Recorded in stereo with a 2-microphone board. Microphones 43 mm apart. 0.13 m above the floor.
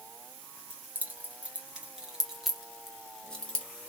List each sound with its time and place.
0.7 s keys jangling: 45° right (ahead or behind), 1.8 m; by 3.7 s 25° left (ahead or behind), 1.4 m